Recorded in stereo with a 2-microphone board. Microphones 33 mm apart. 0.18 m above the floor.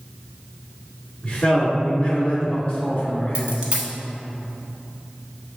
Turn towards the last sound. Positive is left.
turn(degrees=-40)  # may be behind; listen again after turning